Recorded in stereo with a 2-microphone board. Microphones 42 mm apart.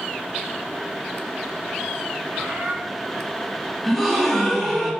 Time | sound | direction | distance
2.3 | a bird | 65° right (ahead or behind) | 3.5 m
3.8 | a gasp | 5° right (ahead or behind) | 3.5 m